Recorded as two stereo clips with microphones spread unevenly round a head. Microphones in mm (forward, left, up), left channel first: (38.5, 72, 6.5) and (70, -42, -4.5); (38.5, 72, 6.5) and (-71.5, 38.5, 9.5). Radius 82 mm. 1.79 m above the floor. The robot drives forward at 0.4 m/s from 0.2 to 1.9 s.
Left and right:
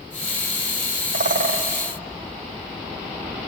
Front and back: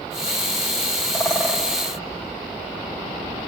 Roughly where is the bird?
Ahead right.